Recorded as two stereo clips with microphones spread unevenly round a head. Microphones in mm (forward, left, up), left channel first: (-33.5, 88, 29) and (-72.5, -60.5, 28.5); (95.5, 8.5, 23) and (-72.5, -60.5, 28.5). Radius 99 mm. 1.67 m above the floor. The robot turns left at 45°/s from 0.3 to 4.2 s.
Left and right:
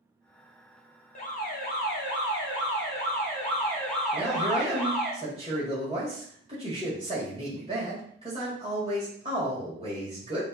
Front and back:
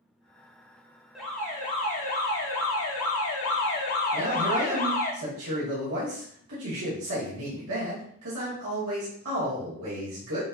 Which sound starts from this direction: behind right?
A man speaking, at 4.1 s.